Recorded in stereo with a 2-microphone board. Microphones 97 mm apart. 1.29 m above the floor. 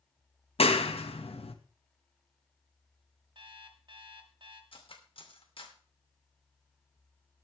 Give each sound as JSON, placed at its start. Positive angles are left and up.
{"t": 0.6, "sound": "a clap", "side_deg": 70, "distance_m": 1.4}
{"t": 3.4, "sound": "an alarm clock", "side_deg": -55, "distance_m": 2.0}
{"t": 4.7, "sound": "cutlery clinking", "side_deg": 60, "distance_m": 2.5}